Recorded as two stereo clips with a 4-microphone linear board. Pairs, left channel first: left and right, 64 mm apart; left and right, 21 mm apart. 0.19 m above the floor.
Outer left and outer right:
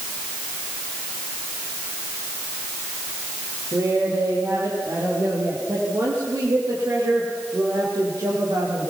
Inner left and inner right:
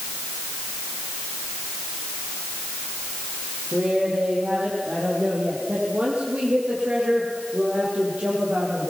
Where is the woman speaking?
65° right (ahead or behind), 6.5 m; by 8.9 s 80° right, 6.5 m.